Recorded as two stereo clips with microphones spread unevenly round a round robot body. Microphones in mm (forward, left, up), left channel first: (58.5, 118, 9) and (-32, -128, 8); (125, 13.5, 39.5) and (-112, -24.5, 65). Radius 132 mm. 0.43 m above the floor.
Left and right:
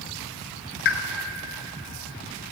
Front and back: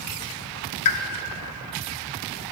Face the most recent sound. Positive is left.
turn(degrees=25)